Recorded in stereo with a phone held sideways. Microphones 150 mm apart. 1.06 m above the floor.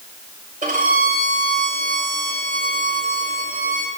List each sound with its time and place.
0.6 s a violin: 65° right (ahead or behind), 6.5 m